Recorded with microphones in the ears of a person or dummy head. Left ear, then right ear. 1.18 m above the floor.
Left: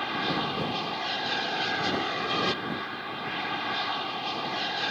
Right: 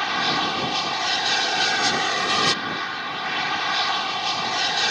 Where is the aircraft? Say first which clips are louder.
Right 7 dB; 70° right (ahead or behind).